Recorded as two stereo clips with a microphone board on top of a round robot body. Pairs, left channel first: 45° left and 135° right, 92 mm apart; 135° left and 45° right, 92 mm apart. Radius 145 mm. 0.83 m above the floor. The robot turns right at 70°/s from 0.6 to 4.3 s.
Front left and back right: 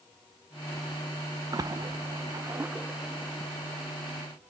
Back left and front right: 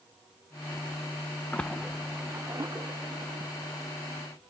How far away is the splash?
About 0.7 m.